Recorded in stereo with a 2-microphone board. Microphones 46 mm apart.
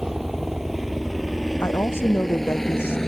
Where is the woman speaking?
60° left (ahead or behind).